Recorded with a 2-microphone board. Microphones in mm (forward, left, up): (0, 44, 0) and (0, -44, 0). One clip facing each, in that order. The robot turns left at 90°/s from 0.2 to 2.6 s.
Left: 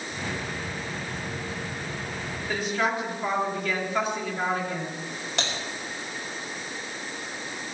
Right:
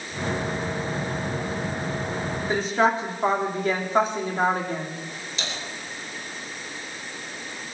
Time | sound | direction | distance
2.5 | a woman speaking | 25° right (ahead or behind) | 2.5 m
5.4 | typing on a keyboard | 65° left (ahead or behind) | 3 m